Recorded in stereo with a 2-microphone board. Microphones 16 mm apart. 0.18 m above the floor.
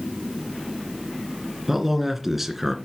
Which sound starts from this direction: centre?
A man speaking, at 1.7 s.